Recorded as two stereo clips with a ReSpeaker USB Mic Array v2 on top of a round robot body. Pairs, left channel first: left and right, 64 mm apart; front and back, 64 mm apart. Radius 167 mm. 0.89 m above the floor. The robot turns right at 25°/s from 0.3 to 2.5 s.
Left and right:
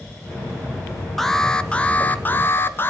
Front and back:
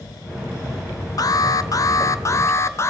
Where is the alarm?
5° left, 0.9 m; by 2.9 s 40° left, 0.9 m.